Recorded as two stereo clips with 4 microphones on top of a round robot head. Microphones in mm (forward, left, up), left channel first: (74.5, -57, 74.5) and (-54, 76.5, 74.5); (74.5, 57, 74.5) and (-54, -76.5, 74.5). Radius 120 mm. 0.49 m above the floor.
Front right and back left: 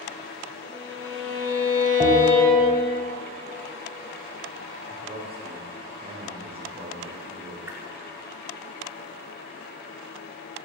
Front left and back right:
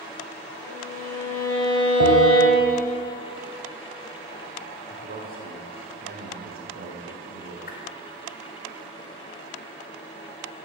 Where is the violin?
30° right, 2.5 m.